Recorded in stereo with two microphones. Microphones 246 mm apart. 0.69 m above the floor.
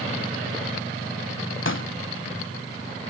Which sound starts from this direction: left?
A pop, at 1.6 s.